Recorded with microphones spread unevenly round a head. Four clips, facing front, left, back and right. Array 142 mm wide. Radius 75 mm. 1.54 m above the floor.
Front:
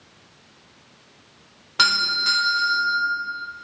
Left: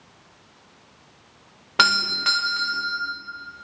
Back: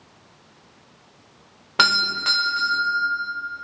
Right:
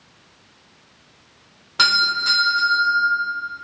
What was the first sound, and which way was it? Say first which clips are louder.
A doorbell: right 1 dB, back 2 dB; 135° left.